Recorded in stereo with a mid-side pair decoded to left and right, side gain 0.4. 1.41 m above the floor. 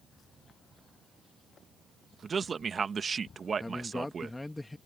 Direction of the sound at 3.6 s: 15° left.